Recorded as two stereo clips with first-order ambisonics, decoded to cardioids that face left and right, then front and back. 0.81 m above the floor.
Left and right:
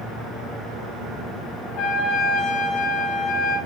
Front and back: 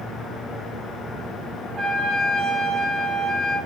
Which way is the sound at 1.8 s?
120° left.